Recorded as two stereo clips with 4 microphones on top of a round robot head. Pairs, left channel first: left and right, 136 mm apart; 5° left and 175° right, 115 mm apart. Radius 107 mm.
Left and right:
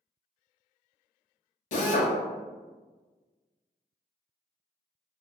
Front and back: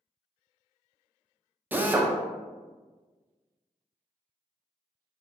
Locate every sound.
1.7 s a drill: 110° left, 0.5 m